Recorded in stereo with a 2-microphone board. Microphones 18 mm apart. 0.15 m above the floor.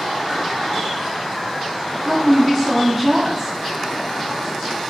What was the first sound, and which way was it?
A woman speaking, 10° right (ahead or behind).